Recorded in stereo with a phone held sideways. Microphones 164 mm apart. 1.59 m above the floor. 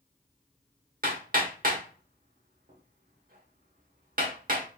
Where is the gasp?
I don't hear a gasp.